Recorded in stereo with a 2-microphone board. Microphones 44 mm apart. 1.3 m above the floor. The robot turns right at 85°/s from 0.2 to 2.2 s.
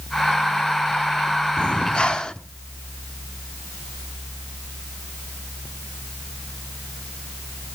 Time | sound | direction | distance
1.6 | breathing | 25° left (ahead or behind) | 0.9 m